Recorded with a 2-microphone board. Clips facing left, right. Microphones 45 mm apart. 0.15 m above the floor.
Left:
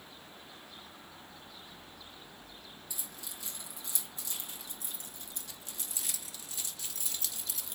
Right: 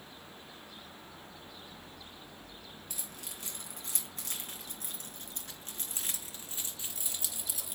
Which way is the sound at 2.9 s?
60° right (ahead or behind).